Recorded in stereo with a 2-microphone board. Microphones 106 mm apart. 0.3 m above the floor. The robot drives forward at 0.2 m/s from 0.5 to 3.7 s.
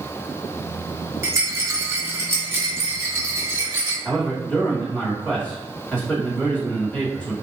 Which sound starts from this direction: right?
A rattle, at 1.2 s.